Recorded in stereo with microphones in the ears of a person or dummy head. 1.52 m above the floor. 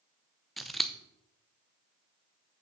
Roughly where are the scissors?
Centre.